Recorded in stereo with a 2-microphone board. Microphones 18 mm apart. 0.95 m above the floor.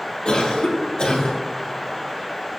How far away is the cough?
About 3 m.